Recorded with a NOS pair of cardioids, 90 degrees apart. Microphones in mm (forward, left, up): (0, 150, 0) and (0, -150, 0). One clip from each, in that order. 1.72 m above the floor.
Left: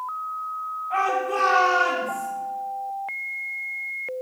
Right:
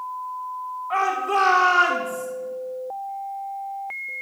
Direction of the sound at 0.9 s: 50° right.